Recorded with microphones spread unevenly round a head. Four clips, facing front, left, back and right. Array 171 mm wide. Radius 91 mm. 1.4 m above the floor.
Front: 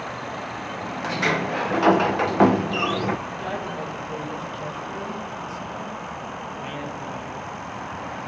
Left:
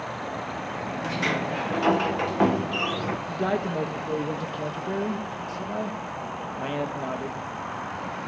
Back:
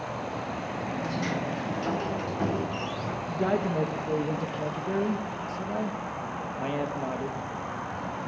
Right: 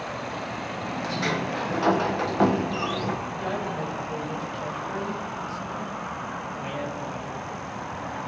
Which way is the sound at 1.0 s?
5° left.